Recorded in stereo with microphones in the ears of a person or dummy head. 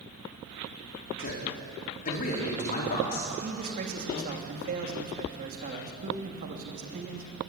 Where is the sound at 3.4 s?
50° right (ahead or behind), 3 m.